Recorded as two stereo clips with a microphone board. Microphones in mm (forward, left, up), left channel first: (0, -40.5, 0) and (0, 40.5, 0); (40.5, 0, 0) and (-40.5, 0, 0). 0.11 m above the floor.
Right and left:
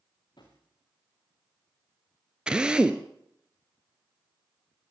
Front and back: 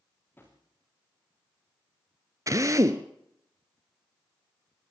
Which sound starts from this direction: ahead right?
A drawer, at 0.4 s.